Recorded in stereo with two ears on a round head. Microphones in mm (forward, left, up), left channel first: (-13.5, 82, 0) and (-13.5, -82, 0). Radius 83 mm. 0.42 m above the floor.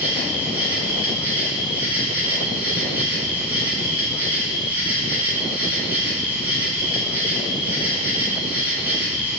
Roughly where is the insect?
Centre.